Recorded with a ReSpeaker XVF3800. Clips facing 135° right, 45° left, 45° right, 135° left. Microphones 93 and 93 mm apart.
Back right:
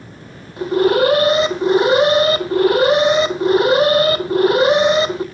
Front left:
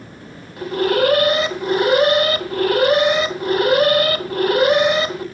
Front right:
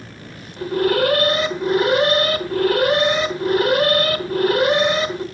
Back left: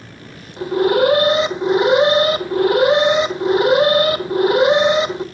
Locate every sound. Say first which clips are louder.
0.6 s an alarm: back right 3 dB, back left 3 dB; straight behind, 1.1 m